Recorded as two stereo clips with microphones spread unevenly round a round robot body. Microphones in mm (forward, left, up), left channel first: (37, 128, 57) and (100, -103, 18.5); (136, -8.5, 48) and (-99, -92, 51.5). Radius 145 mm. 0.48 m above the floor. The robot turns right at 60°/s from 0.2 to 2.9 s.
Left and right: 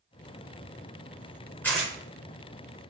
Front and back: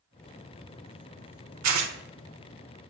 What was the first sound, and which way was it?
Tearing paper, 170° right.